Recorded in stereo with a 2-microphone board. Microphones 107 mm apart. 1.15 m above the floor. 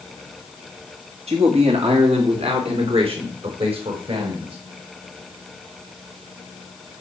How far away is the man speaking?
About 2 m.